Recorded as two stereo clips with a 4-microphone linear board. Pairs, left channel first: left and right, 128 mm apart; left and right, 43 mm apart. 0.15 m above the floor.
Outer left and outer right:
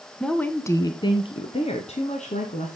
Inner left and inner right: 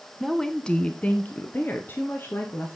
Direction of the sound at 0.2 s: 5° left (ahead or behind).